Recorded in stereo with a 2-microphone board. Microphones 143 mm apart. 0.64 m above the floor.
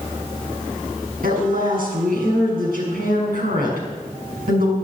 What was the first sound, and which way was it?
A woman speaking, 80° right.